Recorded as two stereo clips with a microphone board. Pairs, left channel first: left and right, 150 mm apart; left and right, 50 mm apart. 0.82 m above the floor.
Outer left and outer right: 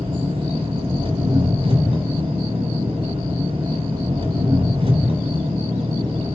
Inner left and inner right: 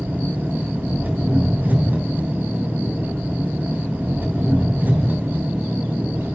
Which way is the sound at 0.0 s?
45° right (ahead or behind).